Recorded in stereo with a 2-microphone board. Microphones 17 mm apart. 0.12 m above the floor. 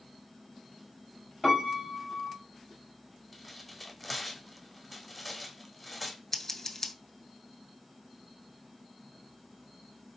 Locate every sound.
1.4 s a piano: centre (ahead or behind), 1.5 m
3.3 s tearing paper: 5° right (ahead or behind), 0.9 m
6.3 s scissors: 20° left (ahead or behind), 0.7 m